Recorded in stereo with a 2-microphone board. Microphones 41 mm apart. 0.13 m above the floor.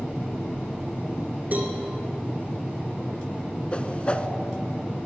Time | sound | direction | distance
1.5 | a cowbell | 40° right (ahead or behind) | 1.8 m
3.7 | a whoosh | 30° left (ahead or behind) | 0.7 m